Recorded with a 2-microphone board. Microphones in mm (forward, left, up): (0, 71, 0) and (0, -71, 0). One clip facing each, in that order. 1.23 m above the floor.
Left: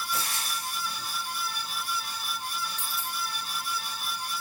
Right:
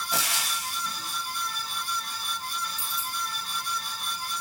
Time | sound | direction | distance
0.1 | frying | 80° right | 0.8 m
2.8 | a dropped coin | 70° left (ahead or behind) | 2.5 m